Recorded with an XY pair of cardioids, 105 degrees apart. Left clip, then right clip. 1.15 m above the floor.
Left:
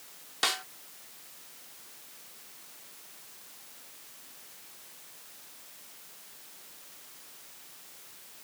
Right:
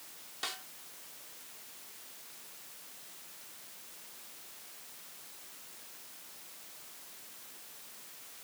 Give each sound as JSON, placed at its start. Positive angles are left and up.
{"t": 0.4, "sound": "a snare drum", "azimuth_deg": 65}